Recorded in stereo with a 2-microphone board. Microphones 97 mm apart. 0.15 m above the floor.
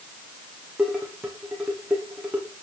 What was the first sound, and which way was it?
Dishes clattering, 10° right (ahead or behind).